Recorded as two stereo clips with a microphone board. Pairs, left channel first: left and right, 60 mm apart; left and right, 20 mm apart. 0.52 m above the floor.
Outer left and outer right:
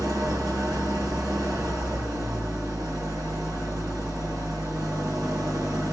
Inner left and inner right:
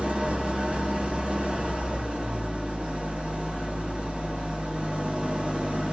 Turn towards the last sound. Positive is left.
turn(degrees=-75)  # may be behind; listen again after turning